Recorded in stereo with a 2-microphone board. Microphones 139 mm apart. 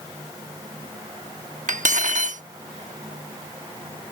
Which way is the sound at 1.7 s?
65° right (ahead or behind).